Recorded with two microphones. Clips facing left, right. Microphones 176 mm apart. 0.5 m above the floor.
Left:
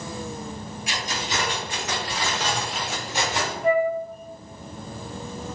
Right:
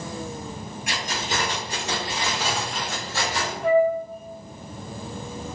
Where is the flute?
70° right (ahead or behind), 0.6 m.